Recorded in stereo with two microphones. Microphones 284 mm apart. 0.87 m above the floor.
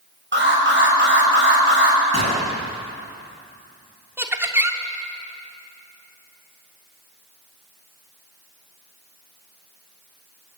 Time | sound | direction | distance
0.3 | an alarm | 40° right (ahead or behind) | 6 m
2.1 | a gunshot | 65° right (ahead or behind) | 5.5 m
4.2 | laughter | 10° right (ahead or behind) | 3 m